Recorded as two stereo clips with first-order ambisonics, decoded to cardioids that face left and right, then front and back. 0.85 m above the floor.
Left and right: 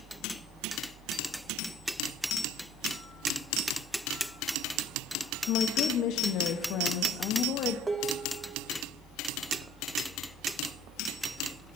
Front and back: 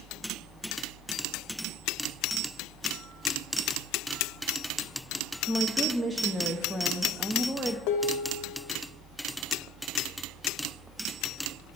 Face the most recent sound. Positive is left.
turn(degrees=-10)